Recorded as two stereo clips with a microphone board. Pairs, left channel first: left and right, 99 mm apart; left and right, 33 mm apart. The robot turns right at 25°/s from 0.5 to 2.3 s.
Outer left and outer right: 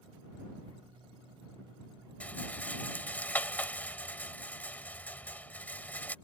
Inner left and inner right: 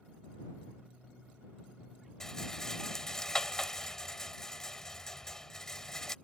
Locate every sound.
2.2 s a rattle: 15° left (ahead or behind)